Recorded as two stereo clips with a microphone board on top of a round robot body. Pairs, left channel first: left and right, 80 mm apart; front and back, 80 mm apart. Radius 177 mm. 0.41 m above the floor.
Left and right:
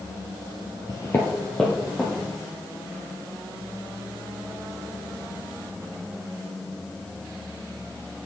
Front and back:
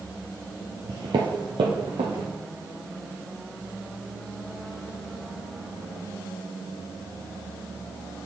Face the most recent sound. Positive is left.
turn(degrees=175)